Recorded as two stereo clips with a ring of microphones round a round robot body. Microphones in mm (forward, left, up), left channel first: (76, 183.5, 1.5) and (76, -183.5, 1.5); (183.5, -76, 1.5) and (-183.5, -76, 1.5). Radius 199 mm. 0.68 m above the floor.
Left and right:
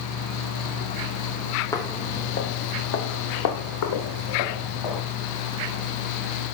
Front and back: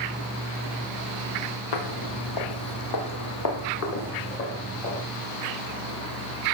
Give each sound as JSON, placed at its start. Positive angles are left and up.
{"t": 1.7, "sound": "footsteps", "azimuth_deg": 10, "distance_m": 1.5}